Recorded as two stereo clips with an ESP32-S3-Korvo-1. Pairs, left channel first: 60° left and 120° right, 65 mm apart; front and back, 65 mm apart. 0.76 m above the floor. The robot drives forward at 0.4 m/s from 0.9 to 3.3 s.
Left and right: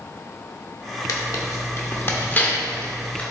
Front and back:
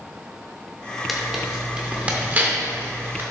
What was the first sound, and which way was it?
Tearing paper, 95° left.